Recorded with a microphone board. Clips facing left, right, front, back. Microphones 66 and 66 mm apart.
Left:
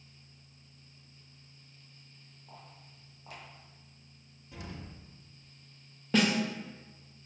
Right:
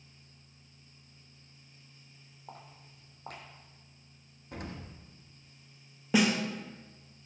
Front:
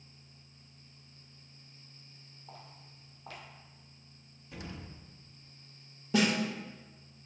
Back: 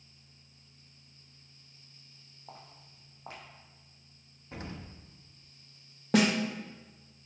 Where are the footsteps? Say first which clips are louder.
Right 3 dB, back 1 dB; 120° right, 2.5 m.